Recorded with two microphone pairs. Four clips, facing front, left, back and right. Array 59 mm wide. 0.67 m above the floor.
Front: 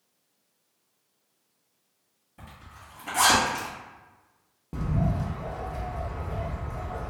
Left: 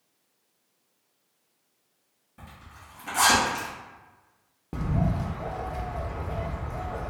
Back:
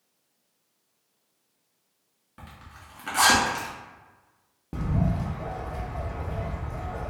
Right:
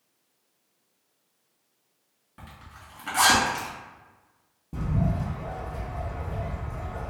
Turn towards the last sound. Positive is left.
turn(degrees=115)